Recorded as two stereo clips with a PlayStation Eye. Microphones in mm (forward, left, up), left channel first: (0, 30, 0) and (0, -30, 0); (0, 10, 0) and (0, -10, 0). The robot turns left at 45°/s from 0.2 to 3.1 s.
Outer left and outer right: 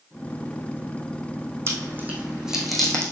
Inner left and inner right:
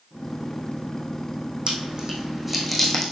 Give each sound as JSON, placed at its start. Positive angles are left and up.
{"t": 1.7, "sound": "chewing", "side_deg": -45, "distance_m": 2.5}